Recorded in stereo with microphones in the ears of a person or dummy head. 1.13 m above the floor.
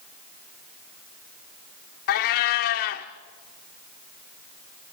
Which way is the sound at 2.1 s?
55° left (ahead or behind).